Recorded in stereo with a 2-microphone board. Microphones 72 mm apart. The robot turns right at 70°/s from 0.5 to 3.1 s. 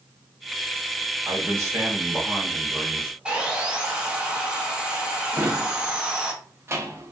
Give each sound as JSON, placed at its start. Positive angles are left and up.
{"t": 1.2, "sound": "a man speaking", "azimuth_deg": -95, "distance_m": 1.4}
{"t": 3.2, "sound": "sawing", "side_deg": -15, "distance_m": 0.7}
{"t": 5.3, "sound": "a drawer", "side_deg": -35, "distance_m": 0.8}